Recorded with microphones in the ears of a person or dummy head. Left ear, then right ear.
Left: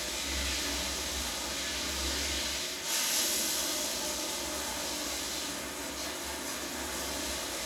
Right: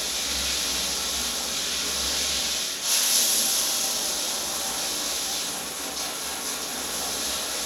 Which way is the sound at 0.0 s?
90° right.